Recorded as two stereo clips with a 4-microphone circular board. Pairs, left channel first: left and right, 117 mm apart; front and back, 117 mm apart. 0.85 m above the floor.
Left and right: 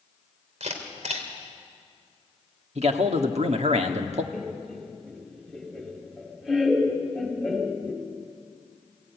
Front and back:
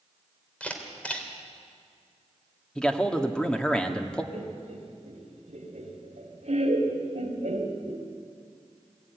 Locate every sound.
0.6 s a camera shutter: 80° right, 2.5 m
2.8 s a man speaking: 80° right, 1.6 m
4.3 s laughter: straight behind, 3 m